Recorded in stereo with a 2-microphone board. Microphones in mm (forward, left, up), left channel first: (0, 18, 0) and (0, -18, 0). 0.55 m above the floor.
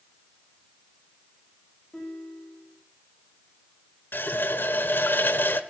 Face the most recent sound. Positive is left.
turn(degrees=65)  # may be behind; listen again after turning